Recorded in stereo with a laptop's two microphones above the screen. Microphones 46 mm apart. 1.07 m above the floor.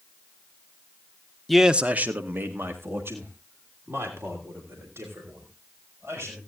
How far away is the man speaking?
About 0.5 m.